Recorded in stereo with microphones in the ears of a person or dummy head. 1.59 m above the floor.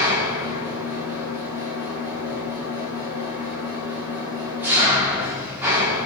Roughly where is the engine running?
Centre.